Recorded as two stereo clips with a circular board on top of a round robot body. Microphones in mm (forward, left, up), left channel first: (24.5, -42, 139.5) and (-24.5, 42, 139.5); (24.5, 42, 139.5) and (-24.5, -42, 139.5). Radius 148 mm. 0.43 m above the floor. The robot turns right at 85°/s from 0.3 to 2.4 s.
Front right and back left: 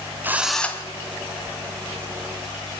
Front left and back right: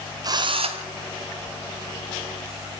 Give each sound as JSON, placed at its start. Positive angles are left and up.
{"t": 0.2, "sound": "a drill", "azimuth_deg": -170, "distance_m": 1.8}